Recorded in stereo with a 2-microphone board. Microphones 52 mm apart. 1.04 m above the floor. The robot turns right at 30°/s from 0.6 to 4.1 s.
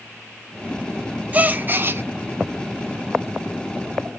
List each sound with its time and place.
1.3 s a gasp: 30° right (ahead or behind), 0.5 m; by 2.0 s 50° right (ahead or behind), 0.5 m